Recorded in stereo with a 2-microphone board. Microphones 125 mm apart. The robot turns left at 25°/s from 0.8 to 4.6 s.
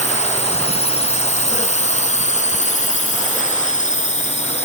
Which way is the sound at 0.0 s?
65° left (ahead or behind).